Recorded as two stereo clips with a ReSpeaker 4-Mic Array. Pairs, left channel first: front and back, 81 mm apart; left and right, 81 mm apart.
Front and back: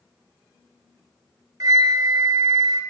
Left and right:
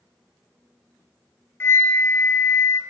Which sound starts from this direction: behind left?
A flute, at 1.6 s.